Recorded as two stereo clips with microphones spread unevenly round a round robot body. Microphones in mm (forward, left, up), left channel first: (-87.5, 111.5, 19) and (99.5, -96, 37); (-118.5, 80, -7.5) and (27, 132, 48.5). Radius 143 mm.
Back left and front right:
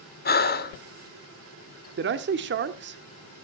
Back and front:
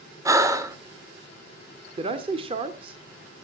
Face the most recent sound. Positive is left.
turn(degrees=-50)